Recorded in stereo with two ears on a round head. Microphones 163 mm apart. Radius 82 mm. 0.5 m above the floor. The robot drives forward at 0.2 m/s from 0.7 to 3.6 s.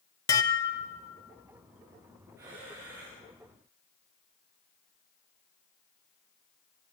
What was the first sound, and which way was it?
Dishes clattering, 20° left (ahead or behind).